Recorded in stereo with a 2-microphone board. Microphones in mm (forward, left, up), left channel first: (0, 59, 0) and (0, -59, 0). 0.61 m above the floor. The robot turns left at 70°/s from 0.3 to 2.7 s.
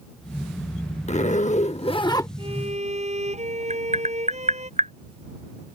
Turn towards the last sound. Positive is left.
turn(degrees=-70)  # may be behind; listen again after turning